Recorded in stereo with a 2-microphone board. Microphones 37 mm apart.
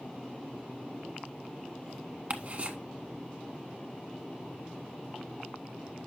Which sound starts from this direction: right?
Ticking, at 2.3 s.